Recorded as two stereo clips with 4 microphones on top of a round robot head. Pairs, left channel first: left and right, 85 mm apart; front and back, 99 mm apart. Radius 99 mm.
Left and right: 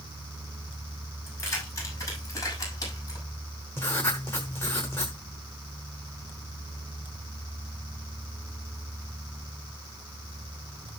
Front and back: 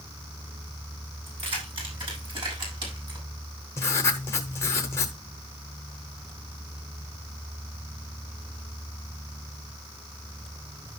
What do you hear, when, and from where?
1.3 s keys jangling: 145° left, 6.5 m; by 3.3 s 140° left, 6 m
3.8 s writing: 30° left, 0.8 m